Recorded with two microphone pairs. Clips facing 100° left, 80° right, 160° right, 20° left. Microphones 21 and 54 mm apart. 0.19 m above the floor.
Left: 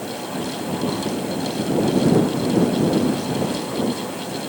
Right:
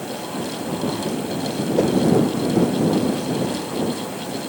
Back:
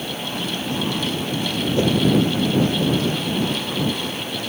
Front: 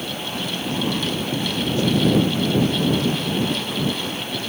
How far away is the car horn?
No car horn in this recording.